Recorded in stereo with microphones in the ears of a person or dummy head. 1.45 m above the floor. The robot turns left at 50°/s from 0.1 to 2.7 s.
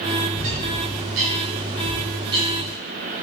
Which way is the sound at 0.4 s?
45° right (ahead or behind).